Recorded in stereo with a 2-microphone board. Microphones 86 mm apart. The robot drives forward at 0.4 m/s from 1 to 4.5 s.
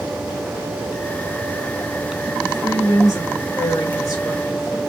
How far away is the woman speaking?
About 2.5 m.